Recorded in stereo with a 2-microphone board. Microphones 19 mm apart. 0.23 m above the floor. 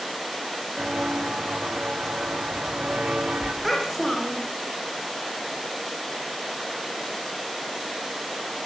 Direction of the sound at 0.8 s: 65° right (ahead or behind).